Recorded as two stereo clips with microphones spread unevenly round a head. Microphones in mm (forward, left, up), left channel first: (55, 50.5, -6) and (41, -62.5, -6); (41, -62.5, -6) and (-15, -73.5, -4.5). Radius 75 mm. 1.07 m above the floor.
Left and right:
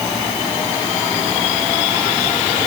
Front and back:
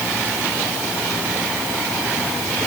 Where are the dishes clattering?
No dishes clattering in this recording.